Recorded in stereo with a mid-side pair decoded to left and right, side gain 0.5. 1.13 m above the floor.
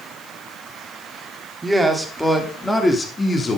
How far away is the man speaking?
About 3.5 m.